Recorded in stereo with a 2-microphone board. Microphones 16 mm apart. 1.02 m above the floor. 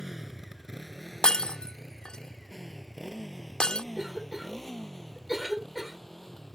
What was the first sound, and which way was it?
A motorcycle, 25° right (ahead or behind).